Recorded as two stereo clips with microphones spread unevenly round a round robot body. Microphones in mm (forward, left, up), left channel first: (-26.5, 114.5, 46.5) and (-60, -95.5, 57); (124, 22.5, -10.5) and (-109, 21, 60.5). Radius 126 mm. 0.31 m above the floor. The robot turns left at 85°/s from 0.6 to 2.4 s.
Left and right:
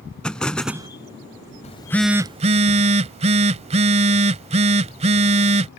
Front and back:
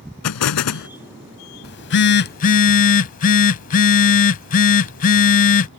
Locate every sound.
0.2 s an explosion: 5° right; by 0.9 s 30° right
1.6 s a phone buzzing: 25° left; by 5.7 s 40° right